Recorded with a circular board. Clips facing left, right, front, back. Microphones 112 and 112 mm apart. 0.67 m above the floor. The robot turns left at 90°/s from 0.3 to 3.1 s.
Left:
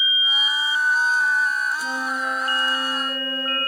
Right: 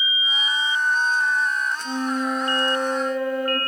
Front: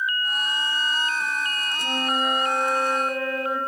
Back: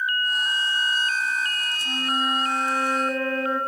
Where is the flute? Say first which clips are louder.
Right 2 dB, front 2 dB; 30° left, 2.5 m; by 3.6 s 85° right, 2.5 m.